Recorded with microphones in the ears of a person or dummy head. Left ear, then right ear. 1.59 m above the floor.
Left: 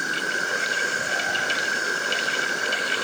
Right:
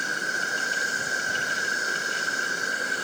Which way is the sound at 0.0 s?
Centre (ahead or behind).